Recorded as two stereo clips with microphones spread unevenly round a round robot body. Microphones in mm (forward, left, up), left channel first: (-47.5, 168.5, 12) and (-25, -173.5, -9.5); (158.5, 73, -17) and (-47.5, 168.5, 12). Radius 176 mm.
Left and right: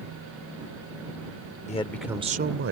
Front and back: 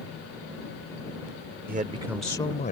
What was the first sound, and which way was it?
A man speaking, 150° left.